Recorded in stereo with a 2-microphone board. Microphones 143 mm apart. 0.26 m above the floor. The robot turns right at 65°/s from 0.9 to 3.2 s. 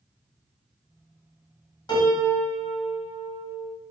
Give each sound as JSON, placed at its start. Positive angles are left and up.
{"t": 1.9, "sound": "a piano", "azimuth_deg": 120, "distance_m": 1.5}